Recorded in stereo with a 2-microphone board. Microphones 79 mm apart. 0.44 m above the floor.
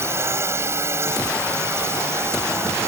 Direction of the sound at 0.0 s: 35° right (ahead or behind).